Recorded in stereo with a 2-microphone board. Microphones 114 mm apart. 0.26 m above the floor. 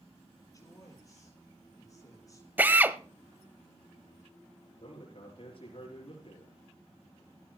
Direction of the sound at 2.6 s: 15° right (ahead or behind).